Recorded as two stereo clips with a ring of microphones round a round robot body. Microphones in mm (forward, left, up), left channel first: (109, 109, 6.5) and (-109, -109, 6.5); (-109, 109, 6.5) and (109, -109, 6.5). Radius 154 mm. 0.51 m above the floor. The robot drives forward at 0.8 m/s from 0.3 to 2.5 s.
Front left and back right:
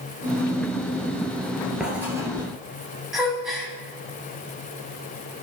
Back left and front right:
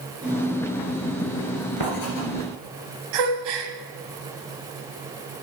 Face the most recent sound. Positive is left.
turn(degrees=-45)